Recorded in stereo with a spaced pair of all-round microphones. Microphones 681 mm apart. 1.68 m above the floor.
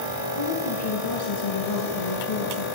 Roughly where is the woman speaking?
Left.